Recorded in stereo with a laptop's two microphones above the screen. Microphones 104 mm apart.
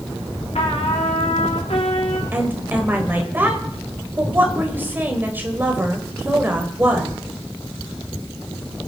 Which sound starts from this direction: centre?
A woman speaking, at 2.3 s.